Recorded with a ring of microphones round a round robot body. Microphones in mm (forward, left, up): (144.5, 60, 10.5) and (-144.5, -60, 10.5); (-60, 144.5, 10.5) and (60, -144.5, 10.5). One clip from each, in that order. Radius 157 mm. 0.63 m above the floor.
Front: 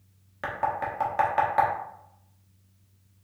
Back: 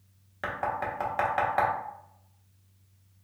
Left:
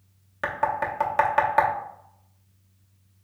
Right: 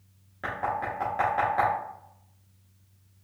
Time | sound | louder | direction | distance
0.4 | knocking | front 2 dB, left 4 dB | 110° left | 1.0 m